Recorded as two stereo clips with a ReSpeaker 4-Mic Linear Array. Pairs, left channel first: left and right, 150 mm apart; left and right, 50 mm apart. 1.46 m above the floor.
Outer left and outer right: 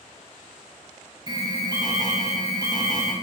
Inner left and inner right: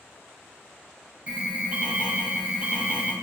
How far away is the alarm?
About 1.2 m.